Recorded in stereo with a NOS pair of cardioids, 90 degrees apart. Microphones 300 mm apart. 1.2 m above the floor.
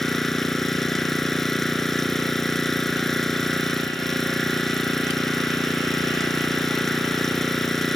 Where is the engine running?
Straight ahead.